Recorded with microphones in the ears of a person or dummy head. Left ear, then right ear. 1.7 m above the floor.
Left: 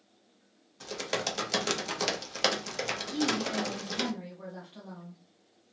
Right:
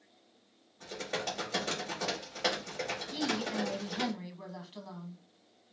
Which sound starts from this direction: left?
Typing on a keyboard, at 0.8 s.